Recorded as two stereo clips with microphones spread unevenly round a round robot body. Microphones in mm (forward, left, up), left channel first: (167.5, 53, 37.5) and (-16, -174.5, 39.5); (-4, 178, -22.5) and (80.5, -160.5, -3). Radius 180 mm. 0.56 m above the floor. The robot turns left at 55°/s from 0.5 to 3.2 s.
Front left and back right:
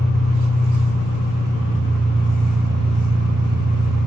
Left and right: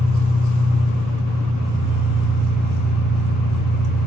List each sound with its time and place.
0.0 s an engine running: 70° left, 5 m; by 4.1 s 75° right, 5 m